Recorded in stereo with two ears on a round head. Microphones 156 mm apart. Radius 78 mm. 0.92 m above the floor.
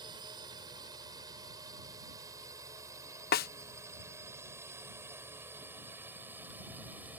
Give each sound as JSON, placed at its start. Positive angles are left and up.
{"t": 0.0, "sound": "a drone", "side_deg": -25}
{"t": 3.3, "sound": "a snare drum", "side_deg": 55}